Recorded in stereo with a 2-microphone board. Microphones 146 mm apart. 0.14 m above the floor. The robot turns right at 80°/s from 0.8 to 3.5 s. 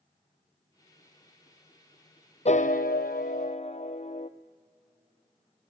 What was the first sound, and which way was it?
A piano, 50° left.